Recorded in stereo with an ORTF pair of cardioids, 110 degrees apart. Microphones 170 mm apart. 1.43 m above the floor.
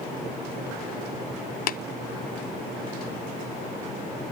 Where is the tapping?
55° left, 0.6 m.